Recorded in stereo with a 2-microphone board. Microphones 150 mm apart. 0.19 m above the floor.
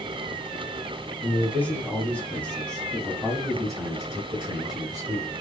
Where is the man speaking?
10° left (ahead or behind), 1.8 m; by 5.3 s 5° right (ahead or behind), 1.9 m.